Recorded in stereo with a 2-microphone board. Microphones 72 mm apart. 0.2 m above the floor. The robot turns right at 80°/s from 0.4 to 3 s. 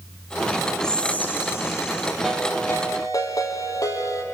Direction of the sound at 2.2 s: 5° right.